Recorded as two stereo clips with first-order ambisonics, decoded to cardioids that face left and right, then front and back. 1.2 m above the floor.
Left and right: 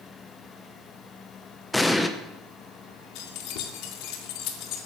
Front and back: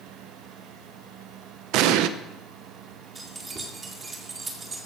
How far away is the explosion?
About 0.9 m.